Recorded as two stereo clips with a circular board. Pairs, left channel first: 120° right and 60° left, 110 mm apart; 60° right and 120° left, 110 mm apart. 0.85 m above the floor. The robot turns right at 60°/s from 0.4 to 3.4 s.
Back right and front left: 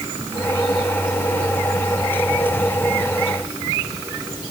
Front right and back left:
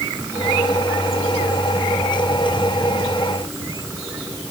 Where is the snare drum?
No snare drum in this recording.